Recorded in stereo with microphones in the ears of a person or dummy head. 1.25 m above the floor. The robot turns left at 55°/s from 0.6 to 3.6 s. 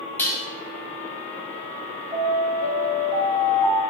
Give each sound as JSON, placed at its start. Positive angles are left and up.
{"t": 0.2, "sound": "dishes clattering", "side_deg": 15, "distance_m": 0.5}
{"t": 2.1, "sound": "an alarm", "azimuth_deg": -15, "distance_m": 0.9}